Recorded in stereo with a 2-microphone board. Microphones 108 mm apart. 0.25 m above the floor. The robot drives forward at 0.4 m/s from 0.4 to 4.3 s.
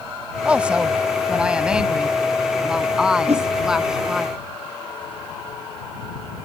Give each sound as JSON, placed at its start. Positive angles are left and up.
{"t": 0.5, "sound": "a woman speaking", "side_deg": -10}
{"t": 3.3, "sound": "a whoosh", "side_deg": -75}